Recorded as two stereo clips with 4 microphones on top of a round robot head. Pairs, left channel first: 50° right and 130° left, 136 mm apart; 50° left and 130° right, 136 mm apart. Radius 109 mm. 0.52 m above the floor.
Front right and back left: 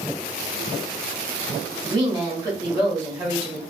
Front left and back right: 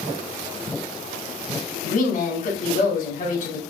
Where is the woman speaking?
65° left, 3 m.